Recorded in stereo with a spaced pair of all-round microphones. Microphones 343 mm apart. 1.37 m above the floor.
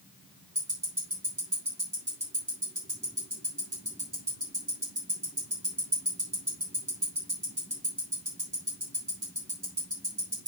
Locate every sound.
0.6 s ticking: 60° right (ahead or behind), 5 m